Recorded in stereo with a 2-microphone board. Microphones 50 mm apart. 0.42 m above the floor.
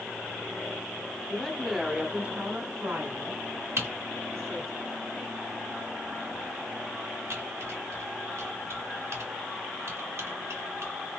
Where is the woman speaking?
20° left (ahead or behind), 0.8 m; by 4.8 s 70° right (ahead or behind), 2 m.